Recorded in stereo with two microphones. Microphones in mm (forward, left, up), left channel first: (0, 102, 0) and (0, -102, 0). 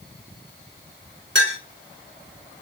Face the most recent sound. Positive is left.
turn(degrees=-65)  # may be behind; listen again after turning